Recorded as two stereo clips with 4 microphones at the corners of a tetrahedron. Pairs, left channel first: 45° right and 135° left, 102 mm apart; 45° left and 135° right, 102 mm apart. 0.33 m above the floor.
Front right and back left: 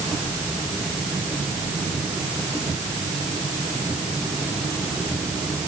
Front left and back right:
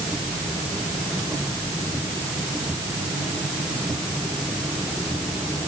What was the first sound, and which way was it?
Only background noise.